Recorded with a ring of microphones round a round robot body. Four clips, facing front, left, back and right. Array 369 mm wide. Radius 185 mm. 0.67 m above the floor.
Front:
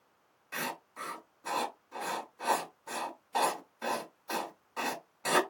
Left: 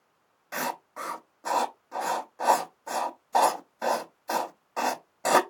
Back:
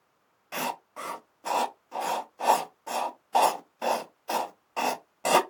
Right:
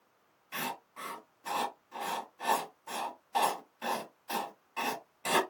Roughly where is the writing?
Behind left.